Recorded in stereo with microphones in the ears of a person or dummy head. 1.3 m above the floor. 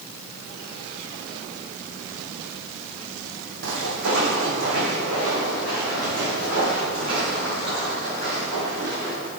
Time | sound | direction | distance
3.6 | footsteps | 65° right (ahead or behind) | 3 m